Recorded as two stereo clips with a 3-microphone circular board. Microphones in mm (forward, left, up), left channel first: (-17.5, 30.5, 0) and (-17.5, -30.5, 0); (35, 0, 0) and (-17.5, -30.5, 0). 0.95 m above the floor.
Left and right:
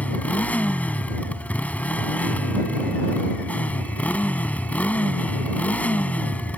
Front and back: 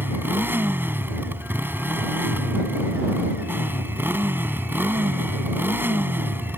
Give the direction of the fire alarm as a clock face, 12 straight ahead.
I don't hear a fire alarm.